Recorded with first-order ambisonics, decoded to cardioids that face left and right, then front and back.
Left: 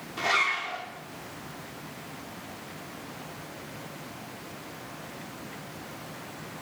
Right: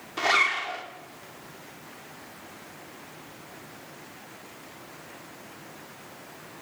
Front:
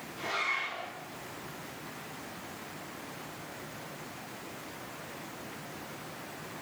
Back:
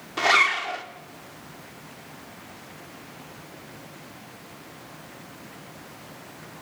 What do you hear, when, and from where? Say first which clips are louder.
0.2 s a zipper: right 3 dB, back 13 dB; 165° right, 1.6 m